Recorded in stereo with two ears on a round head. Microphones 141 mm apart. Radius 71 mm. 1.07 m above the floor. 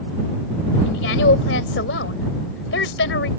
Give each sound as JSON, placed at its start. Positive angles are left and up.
{"t": 0.8, "sound": "a woman speaking", "side_deg": 80}